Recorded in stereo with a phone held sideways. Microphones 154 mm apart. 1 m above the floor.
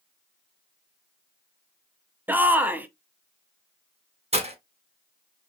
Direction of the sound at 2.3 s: 10° right (ahead or behind).